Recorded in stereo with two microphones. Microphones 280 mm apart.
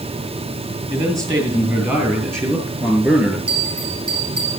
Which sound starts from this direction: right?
A bell, at 3.5 s.